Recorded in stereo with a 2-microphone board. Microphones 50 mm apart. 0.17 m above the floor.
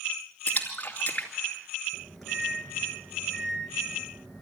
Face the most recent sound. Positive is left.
turn(degrees=0)  # may be behind; listen again after turning